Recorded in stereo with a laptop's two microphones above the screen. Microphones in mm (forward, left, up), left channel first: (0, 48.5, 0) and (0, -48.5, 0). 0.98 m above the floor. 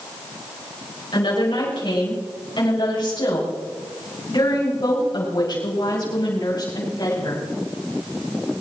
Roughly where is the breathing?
No breathing in this recording.